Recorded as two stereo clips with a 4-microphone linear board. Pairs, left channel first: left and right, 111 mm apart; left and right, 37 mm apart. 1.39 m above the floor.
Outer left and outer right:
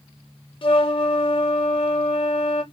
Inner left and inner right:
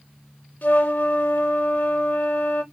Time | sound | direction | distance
0.6 | a flute | 50° left (ahead or behind) | 0.7 m